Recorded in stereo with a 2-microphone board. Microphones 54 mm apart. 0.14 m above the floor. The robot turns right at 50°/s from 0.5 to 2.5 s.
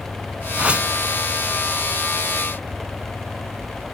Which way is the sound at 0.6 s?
25° right (ahead or behind).